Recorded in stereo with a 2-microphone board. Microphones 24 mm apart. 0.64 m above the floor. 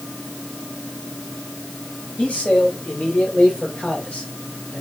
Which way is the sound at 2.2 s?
70° left (ahead or behind).